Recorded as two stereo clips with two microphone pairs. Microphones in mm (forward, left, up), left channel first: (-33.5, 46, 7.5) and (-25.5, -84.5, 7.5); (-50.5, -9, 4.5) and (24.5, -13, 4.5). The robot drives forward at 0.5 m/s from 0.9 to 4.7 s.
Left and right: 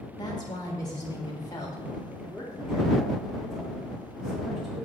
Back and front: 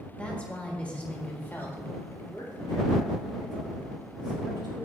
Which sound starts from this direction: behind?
A woman speaking, at 2.1 s.